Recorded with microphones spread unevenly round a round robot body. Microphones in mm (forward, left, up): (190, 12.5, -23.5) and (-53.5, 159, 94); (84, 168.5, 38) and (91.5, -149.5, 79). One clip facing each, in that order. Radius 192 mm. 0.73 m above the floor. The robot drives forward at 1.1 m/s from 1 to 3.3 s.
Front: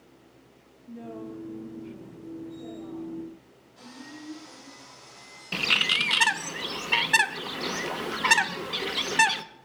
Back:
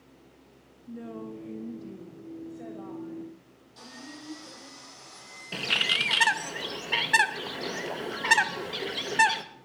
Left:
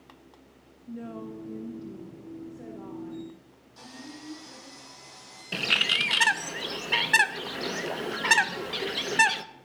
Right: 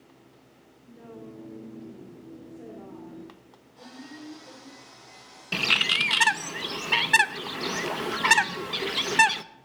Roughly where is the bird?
Ahead.